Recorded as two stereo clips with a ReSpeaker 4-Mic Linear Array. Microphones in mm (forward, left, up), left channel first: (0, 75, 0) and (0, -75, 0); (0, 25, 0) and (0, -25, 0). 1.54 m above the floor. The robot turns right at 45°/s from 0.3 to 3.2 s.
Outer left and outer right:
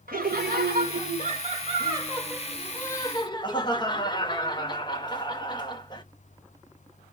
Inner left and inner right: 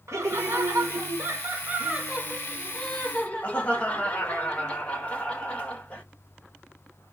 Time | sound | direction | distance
0.1 | laughter | 100° right | 1.5 m